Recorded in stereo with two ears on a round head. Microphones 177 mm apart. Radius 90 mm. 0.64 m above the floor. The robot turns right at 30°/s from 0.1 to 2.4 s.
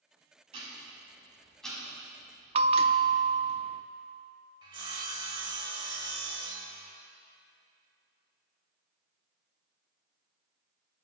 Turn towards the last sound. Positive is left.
turn(degrees=-25)  # may be behind; listen again after turning